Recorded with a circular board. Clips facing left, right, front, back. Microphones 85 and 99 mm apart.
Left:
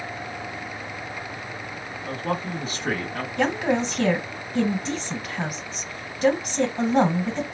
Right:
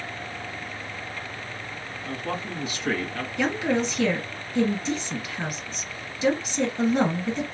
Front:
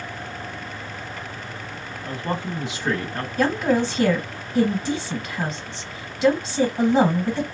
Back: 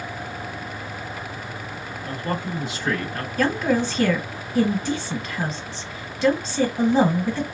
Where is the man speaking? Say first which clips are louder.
Left 4 dB, even; 55° left, 1.3 m.